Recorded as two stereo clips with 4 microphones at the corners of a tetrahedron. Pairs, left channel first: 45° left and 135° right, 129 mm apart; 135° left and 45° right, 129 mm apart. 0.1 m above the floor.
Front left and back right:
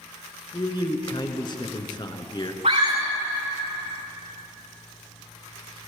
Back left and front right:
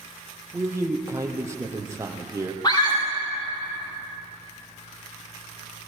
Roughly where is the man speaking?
Ahead.